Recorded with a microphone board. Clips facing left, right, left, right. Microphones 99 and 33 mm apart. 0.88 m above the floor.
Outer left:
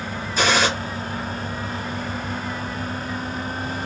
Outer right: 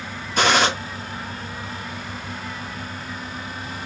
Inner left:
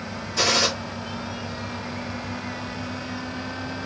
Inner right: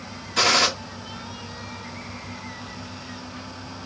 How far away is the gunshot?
About 1.6 m.